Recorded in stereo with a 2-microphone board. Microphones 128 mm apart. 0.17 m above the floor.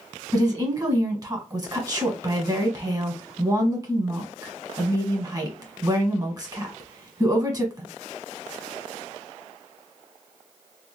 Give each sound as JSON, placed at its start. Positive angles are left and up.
{"t": 0.3, "sound": "a woman speaking", "side_deg": -30, "distance_m": 1.4}